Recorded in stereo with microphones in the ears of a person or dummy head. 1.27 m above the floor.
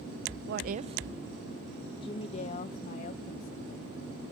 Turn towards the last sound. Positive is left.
turn(degrees=50)  # may be behind; listen again after turning